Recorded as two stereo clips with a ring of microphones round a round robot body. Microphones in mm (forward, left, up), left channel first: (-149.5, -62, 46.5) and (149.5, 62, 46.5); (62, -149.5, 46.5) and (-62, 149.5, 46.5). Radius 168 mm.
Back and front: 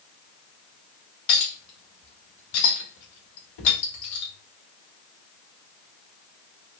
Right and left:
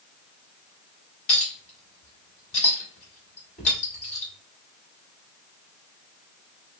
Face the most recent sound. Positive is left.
turn(degrees=-135)